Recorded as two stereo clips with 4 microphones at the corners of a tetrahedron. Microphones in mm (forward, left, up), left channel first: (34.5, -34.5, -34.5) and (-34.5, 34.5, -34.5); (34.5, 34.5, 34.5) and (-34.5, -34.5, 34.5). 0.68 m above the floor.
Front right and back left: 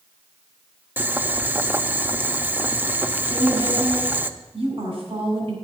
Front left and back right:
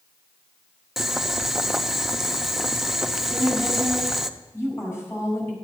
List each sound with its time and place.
1.0 s boiling: 145° left, 0.5 m
3.3 s a woman speaking: 110° left, 5 m